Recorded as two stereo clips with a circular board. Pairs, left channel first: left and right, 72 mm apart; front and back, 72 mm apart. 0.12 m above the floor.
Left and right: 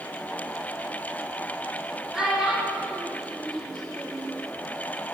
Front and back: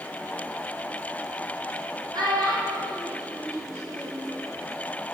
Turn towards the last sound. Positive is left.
turn(degrees=130)